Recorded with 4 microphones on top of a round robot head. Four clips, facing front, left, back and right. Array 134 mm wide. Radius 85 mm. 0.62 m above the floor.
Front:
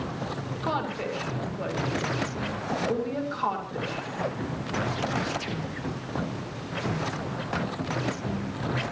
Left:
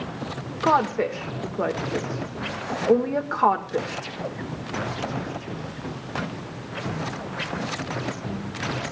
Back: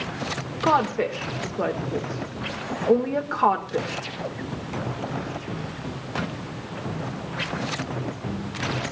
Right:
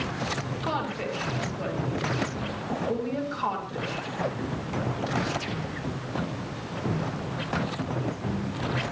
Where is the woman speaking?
130° left, 2.5 m.